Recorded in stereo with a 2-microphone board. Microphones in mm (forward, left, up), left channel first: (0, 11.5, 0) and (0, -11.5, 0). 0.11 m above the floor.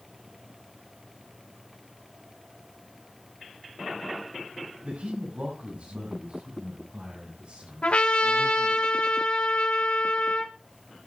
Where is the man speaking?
75° right (ahead or behind), 7.5 m; by 8.8 s 50° right (ahead or behind), 9.5 m.